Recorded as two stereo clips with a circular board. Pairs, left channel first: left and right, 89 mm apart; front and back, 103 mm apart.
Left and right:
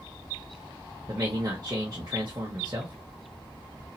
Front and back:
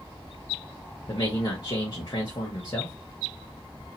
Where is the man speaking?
45° right, 1.4 m.